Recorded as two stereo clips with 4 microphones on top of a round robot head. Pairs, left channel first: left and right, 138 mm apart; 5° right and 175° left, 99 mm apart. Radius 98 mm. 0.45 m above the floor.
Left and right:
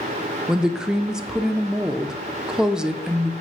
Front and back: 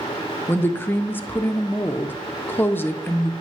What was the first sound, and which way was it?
A woman speaking, 15° right.